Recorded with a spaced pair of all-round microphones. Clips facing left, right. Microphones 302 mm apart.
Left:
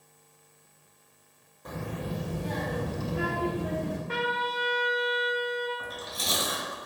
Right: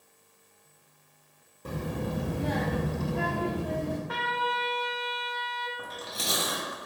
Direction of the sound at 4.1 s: 30° left (ahead or behind).